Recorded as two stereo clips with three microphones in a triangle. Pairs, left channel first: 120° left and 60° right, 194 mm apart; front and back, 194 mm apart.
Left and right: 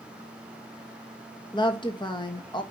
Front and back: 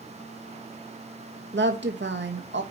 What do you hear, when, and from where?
1.5 s a woman speaking: 175° right, 1.6 m